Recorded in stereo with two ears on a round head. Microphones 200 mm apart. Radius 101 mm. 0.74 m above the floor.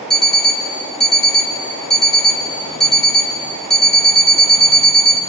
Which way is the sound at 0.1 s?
Centre (ahead or behind).